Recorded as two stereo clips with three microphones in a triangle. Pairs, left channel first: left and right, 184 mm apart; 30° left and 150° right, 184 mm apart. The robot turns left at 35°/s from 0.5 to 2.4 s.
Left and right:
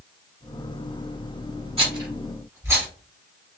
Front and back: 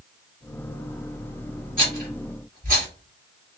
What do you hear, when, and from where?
1.8 s a rattle: 140° right, 1.3 m; by 2.9 s 160° right, 1.3 m